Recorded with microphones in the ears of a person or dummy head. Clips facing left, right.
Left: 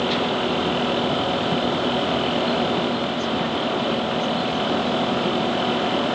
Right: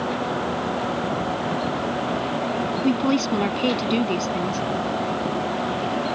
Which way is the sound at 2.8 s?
80° right.